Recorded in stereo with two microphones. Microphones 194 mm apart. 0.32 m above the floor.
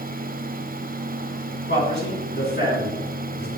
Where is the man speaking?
60° left (ahead or behind), 2 m.